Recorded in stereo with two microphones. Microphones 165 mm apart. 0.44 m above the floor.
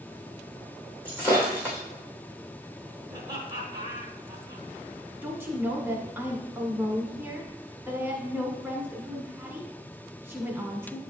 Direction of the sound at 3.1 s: 25° right (ahead or behind).